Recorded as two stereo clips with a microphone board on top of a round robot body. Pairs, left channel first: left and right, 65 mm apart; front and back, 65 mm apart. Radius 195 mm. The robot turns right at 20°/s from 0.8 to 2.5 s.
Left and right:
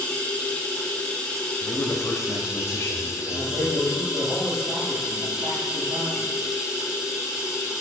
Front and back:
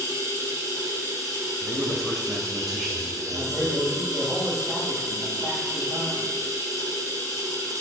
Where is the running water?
155° left, 1.8 m; by 7.8 s 170° right, 1.8 m.